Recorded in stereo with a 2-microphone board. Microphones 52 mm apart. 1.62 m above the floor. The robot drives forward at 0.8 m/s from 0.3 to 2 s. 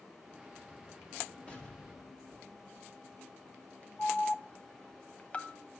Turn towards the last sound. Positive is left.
turn(degrees=30)  # may be behind; listen again after turning